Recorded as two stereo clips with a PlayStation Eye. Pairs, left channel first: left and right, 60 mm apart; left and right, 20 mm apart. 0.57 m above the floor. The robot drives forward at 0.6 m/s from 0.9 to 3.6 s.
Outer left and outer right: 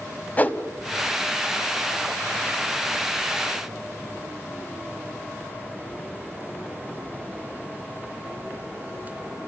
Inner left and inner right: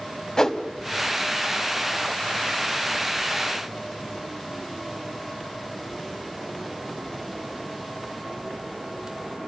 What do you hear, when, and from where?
0.4 s a whoosh: 30° left (ahead or behind), 1.2 m